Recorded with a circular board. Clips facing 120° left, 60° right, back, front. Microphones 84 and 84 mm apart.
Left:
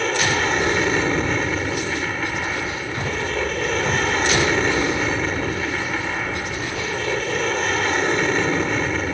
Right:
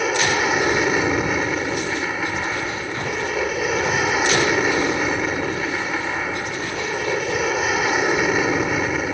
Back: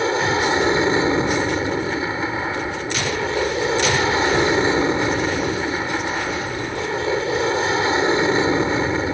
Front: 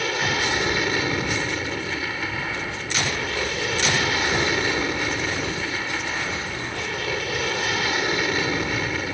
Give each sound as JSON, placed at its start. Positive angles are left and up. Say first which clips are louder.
{"t": 0.0, "sound": "an aircraft", "louder": "right 1 dB, back 6 dB", "azimuth_deg": -140}